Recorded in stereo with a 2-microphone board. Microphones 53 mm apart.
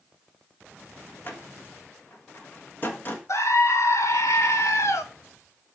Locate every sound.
1.2 s a door slam: 40° left (ahead or behind), 1.5 m
3.3 s a scream: 60° left (ahead or behind), 1.4 m